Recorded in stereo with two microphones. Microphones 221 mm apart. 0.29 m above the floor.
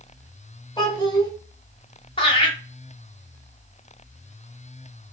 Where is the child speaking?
20° left (ahead or behind), 1.0 m.